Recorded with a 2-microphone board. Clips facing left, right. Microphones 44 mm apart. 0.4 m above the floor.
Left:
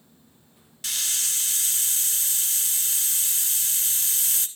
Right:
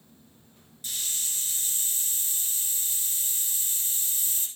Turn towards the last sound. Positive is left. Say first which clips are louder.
# left 6 dB
turn(degrees=80)